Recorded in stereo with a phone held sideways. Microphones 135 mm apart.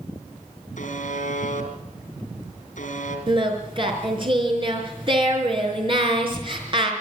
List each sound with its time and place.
0.8 s a buzzer: 70° left (ahead or behind), 3.5 m
3.3 s singing: 40° right (ahead or behind), 4.5 m